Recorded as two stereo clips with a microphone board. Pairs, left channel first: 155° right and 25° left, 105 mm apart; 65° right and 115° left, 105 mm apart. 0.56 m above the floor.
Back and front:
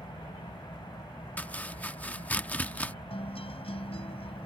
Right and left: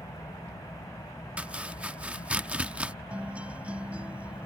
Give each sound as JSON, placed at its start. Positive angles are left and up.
{"t": 0.0, "sound": "an engine running", "azimuth_deg": -120}
{"t": 1.4, "sound": "chopping", "azimuth_deg": 160}
{"t": 3.1, "sound": "a guitar", "azimuth_deg": -170}